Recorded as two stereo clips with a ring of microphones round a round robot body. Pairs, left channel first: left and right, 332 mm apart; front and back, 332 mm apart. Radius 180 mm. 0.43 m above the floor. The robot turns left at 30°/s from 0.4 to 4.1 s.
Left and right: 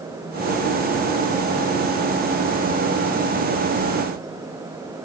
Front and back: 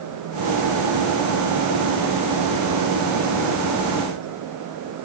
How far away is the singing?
I don't hear singing.